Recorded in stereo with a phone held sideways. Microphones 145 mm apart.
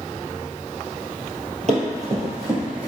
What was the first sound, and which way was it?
Running footsteps, 50° right (ahead or behind).